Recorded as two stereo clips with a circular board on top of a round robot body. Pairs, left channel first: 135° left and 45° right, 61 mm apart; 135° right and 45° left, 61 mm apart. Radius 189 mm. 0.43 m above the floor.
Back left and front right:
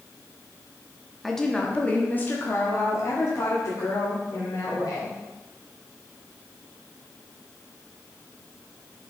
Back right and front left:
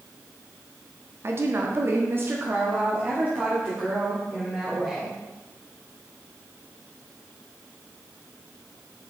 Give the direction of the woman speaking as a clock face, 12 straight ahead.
10 o'clock.